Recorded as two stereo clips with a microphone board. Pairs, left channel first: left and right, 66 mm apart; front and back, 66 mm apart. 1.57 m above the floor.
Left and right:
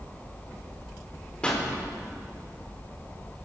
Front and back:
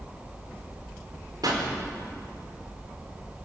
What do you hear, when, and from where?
1.4 s a pop: 165° left, 4.5 m